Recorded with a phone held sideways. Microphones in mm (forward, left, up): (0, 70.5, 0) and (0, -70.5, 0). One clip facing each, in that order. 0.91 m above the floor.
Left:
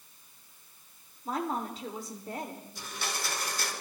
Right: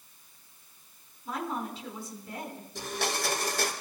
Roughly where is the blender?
Right.